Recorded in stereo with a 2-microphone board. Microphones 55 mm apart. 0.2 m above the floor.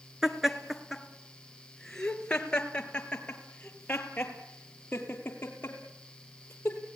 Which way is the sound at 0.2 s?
10° right (ahead or behind).